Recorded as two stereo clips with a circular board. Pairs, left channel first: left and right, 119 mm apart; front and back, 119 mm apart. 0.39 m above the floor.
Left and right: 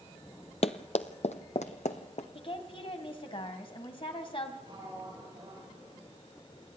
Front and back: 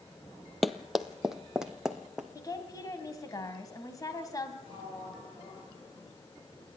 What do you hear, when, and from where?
0.6 s running footsteps: 90° left, 0.7 m; by 2.2 s 95° left, 1.7 m
2.4 s a woman speaking: 55° left, 2.5 m
4.6 s a sliding door: 40° right, 8 m